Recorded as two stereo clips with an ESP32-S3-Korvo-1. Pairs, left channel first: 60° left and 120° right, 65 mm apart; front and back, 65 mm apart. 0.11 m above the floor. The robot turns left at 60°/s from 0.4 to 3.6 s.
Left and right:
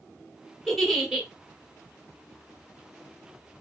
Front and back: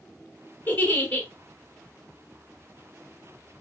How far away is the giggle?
About 1.4 m.